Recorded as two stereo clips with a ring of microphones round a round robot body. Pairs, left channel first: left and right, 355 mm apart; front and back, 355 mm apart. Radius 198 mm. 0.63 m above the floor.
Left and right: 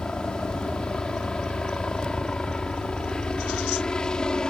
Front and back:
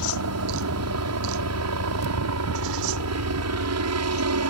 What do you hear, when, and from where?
0.0 s a helicopter: 175° left